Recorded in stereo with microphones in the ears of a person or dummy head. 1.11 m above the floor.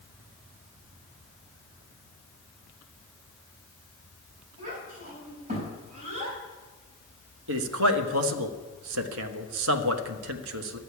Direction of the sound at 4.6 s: 50° right (ahead or behind).